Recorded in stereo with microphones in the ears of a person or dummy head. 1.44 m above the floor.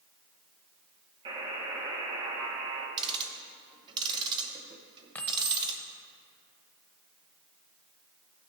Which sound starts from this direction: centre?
Keys jangling, at 5.2 s.